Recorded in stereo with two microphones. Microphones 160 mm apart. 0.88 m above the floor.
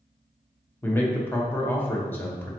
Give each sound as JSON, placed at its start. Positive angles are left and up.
{"t": 0.8, "sound": "a man speaking", "side_deg": 15, "distance_m": 0.8}